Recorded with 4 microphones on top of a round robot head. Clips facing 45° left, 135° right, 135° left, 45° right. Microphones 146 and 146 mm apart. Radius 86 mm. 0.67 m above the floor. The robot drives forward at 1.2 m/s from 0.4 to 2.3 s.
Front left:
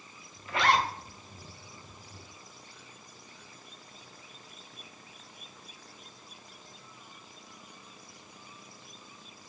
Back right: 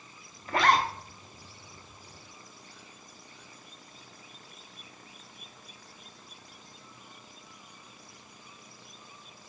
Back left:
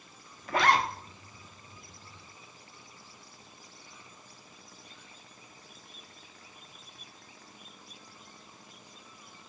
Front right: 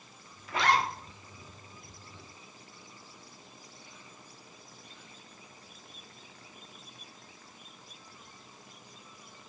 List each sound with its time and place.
0.5 s a zipper: 175° left, 0.8 m; by 0.9 s straight behind, 1.2 m